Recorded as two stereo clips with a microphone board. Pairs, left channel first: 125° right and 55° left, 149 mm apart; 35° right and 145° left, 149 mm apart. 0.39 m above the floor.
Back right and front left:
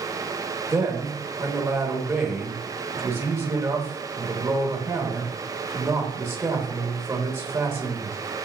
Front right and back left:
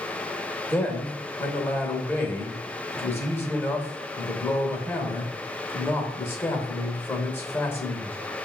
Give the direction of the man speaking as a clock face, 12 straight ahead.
12 o'clock.